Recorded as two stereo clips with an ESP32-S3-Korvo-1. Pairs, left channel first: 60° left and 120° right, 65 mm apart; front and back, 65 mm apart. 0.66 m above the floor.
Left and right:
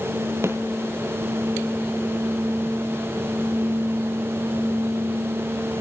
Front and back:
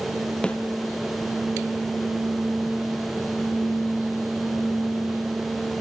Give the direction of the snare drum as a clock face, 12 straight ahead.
2 o'clock.